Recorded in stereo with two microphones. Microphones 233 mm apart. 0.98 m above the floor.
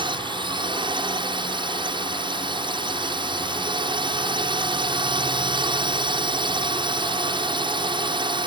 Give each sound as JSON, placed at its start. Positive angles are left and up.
{"t": 0.0, "sound": "a drone", "side_deg": -20}